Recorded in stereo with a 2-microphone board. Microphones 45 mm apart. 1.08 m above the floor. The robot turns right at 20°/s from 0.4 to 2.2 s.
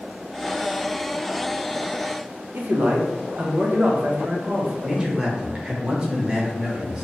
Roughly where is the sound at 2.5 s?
Right.